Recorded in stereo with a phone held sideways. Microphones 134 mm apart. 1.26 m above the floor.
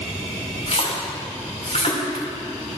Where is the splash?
50° left (ahead or behind), 2.5 m.